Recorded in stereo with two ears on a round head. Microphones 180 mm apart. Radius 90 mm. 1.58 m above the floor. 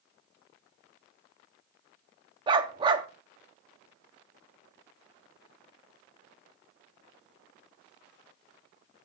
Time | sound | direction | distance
2.5 | a dog barking | 25° right (ahead or behind) | 1.1 m